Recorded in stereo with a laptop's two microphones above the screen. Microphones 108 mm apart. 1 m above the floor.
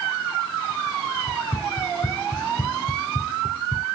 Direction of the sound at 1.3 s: 80° left.